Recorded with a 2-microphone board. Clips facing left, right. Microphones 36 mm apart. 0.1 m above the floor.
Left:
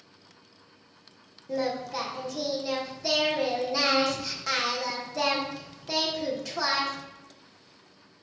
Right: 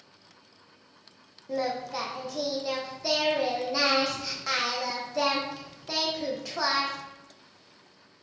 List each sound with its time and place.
1.5 s singing: 10° right (ahead or behind), 1.5 m